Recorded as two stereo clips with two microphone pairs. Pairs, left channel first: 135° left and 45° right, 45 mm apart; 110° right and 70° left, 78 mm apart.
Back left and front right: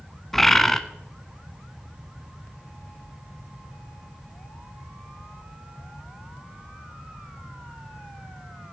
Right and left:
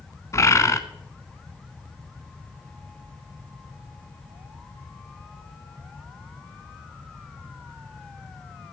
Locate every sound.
0.3 s a bird: 145° right, 0.8 m